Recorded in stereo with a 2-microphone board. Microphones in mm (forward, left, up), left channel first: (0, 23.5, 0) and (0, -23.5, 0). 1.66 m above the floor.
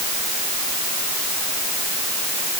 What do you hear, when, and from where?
Only background noise.